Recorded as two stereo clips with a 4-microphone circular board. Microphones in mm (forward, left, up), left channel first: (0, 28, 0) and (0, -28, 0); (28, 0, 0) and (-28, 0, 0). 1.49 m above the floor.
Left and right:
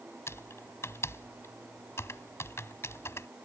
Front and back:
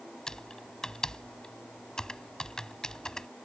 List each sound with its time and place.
0.3 s typing on a keyboard: 75° left